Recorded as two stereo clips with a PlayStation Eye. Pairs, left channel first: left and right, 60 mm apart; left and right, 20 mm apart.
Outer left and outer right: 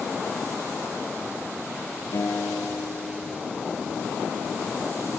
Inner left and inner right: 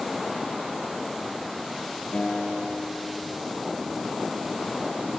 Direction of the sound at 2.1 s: 60° left (ahead or behind).